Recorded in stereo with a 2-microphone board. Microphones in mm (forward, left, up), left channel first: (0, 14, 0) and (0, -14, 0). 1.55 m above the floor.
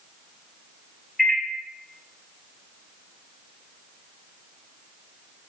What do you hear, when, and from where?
1.2 s a microwave: 20° left (ahead or behind), 0.8 m